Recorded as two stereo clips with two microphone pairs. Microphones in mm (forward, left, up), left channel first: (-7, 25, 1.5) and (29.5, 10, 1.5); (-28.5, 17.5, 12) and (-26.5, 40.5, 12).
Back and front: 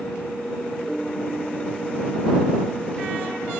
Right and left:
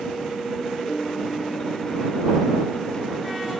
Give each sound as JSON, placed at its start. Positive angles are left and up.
{"t": 0.9, "sound": "a piano", "azimuth_deg": -120}